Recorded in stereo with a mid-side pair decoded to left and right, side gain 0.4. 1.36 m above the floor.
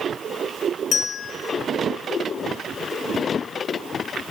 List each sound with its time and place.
0.9 s a bell: 55° left, 1.5 m